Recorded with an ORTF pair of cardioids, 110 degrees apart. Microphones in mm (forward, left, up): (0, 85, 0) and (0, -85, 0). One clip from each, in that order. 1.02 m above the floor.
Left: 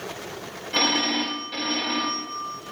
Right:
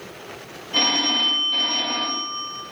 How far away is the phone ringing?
About 2.5 m.